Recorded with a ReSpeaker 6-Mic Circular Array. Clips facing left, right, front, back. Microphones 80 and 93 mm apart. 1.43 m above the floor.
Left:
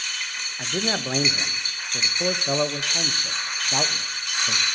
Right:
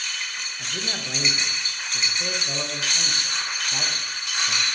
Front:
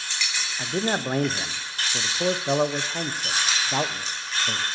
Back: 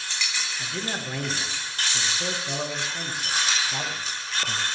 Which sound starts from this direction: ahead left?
A man speaking, at 0.6 s.